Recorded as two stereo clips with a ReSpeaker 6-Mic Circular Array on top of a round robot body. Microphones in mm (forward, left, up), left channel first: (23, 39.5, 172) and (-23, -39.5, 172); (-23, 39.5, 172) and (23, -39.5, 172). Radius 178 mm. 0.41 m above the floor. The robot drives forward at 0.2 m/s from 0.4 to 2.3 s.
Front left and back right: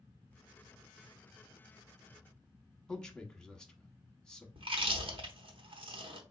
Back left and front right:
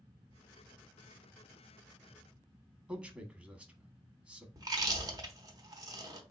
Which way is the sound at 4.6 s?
105° right.